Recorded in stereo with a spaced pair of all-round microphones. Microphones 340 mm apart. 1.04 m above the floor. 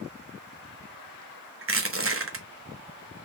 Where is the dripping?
I don't hear dripping.